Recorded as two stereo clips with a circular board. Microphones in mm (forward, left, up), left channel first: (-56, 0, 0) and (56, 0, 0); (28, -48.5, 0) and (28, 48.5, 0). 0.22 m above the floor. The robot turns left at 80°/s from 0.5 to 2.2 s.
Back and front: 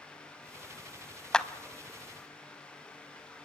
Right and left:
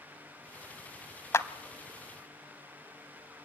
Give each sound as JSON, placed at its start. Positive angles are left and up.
{"t": 1.3, "sound": "a clap", "azimuth_deg": -100, "distance_m": 0.8}